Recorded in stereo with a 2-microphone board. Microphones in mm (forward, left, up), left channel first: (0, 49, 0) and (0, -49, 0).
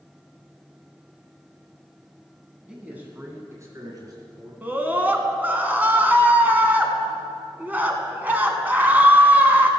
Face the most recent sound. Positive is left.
turn(degrees=-20)  # may be behind; listen again after turning